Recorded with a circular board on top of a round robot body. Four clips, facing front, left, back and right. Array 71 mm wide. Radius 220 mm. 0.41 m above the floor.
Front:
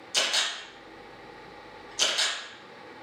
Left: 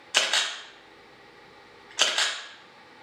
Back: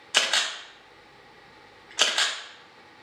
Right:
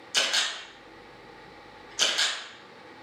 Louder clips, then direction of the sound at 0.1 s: Left 2 dB, back 4 dB; 140° left.